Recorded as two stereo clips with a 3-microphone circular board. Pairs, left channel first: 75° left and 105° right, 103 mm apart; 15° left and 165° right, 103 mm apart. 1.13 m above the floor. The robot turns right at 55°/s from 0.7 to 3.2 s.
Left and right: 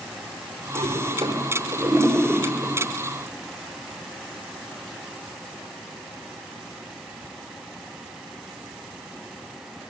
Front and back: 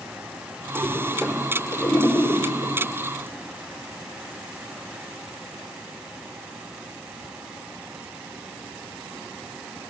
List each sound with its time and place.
0.8 s a toilet flushing: 120° right, 4.5 m; by 2.8 s 10° right, 4.5 m